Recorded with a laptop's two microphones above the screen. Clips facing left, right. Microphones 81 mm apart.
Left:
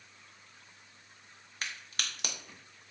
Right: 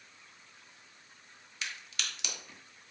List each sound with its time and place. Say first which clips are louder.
1.6 s a crack: left 1 dB; 45° left (ahead or behind), 0.6 m